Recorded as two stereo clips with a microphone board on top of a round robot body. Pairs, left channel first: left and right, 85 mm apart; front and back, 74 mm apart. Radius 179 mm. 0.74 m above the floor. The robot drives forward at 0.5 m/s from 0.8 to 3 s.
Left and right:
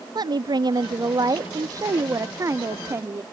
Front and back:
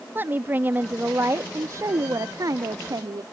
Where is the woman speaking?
120° right; by 3.2 s 145° right.